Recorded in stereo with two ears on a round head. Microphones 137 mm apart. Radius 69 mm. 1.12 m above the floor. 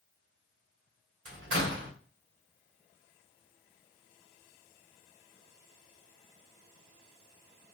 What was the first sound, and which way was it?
A door slam, 75° right (ahead or behind).